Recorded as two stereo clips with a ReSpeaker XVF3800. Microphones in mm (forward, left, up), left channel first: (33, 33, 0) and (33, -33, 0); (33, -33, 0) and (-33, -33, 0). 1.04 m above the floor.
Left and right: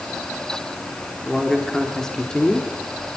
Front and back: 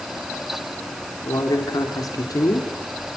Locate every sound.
1.2 s a man speaking: straight ahead, 3 m; by 2.7 s 15° left, 3 m